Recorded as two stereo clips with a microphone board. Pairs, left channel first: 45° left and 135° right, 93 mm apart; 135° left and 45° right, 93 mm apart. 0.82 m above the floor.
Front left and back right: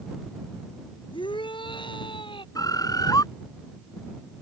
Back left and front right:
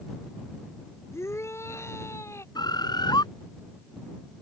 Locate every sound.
1.1 s a shout: 75° left
2.5 s a bird: 95° left